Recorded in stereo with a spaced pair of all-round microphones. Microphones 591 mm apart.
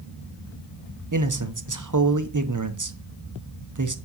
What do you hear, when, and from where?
1.1 s a man speaking: 35° right (ahead or behind), 0.7 m